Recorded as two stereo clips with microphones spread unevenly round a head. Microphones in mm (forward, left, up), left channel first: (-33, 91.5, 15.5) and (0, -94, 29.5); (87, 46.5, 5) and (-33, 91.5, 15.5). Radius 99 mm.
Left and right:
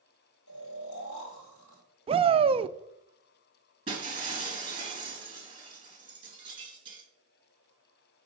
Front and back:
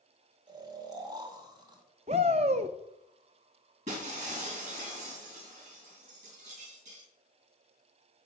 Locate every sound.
0.5 s snoring: 100° left, 2.5 m
2.1 s a shout: 145° right, 0.5 m
3.9 s breaking glass: 145° right, 3.5 m